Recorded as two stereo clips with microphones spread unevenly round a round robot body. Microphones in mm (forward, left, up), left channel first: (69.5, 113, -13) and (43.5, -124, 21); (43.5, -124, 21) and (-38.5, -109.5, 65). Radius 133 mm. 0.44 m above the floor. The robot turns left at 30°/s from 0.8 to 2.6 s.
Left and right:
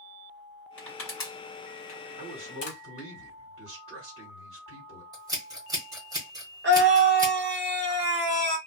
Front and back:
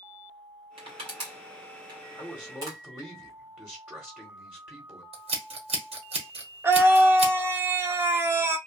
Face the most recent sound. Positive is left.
turn(degrees=-95)